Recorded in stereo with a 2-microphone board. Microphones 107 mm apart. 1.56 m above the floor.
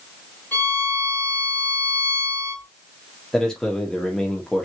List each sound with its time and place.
0.5 s a violin: 15° left (ahead or behind), 2.5 m
3.3 s a man speaking: 5° left (ahead or behind), 0.7 m